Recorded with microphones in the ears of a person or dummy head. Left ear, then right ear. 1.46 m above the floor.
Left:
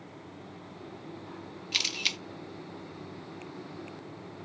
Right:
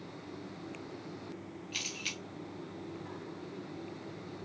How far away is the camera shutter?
About 0.6 m.